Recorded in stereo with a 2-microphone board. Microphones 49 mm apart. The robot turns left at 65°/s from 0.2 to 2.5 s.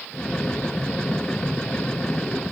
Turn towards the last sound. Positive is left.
No sound to turn to.